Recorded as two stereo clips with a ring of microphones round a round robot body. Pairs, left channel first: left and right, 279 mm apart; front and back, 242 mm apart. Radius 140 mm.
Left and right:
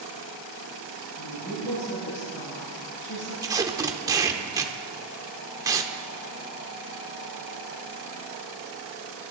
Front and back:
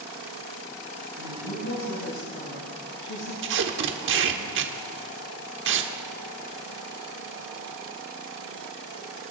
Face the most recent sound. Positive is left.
turn(degrees=-165)